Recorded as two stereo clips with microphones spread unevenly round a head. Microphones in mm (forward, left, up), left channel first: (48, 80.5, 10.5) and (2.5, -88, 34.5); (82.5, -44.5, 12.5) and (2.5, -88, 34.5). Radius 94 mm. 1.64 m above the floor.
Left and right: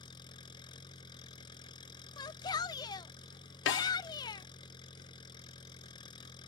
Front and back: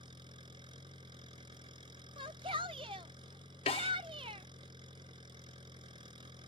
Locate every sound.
0.0 s an engine running: 145° left
2.2 s a shout: 145° left
3.7 s a snare drum: 70° left